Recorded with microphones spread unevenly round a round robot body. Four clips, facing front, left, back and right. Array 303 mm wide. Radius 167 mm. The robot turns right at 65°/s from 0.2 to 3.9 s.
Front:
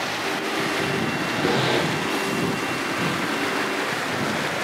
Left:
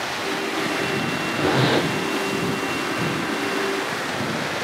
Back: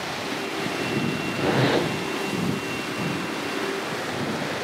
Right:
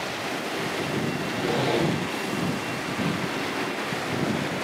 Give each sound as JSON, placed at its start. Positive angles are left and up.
{"t": 1.4, "sound": "a zipper", "azimuth_deg": 80, "distance_m": 4.5}